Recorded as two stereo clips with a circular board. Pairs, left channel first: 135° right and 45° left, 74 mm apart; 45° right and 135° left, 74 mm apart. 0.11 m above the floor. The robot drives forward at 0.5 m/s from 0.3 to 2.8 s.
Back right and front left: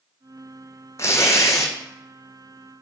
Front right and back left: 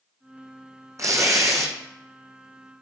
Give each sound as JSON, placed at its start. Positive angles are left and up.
{"t": 1.0, "sound": "tearing paper", "azimuth_deg": 175, "distance_m": 0.9}